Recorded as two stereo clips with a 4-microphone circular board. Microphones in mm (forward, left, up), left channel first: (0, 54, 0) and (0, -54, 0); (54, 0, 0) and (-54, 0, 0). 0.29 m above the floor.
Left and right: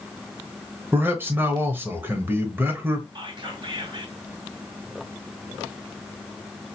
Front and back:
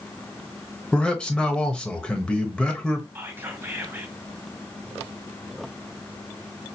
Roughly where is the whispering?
Behind right.